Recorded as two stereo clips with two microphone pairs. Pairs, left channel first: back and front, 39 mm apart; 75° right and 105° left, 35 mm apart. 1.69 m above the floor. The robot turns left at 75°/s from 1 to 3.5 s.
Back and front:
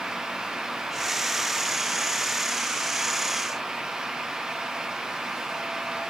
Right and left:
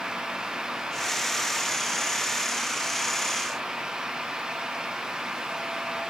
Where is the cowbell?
No cowbell in this recording.